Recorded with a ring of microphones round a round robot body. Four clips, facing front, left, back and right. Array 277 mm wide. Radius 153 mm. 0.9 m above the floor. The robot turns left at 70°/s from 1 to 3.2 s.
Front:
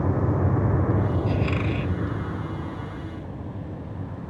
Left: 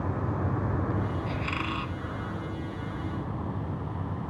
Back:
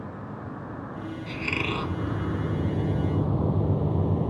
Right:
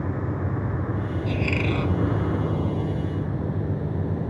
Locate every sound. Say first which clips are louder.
0.0 s a vehicle: right 2 dB, front 13 dB; 15° right; by 4.3 s 145° right
1.3 s a squeak: right 6 dB, front 5 dB; 120° right; by 1.9 s 165° right